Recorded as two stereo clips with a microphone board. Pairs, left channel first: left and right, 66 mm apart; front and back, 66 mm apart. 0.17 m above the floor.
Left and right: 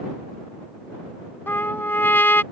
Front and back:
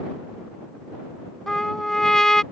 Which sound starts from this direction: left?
A trumpet, at 1.5 s.